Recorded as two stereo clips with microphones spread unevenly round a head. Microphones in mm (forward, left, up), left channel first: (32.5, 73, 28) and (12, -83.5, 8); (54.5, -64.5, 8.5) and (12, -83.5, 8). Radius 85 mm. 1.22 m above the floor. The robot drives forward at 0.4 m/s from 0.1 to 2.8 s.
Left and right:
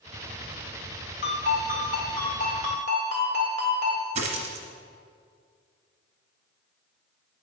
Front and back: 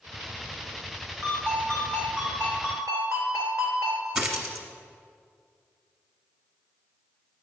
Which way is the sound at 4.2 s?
105° right.